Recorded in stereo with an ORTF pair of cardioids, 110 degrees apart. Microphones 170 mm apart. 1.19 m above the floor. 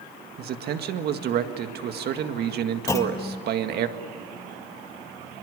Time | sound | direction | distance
0.4 | a man speaking | 65° right | 1.8 m
2.9 | a clunk | 15° left | 1.8 m